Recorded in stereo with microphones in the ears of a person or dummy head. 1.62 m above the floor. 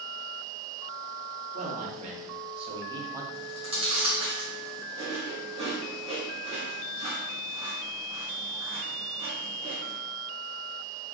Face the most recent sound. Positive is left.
turn(degrees=-30)  # may be behind; listen again after turning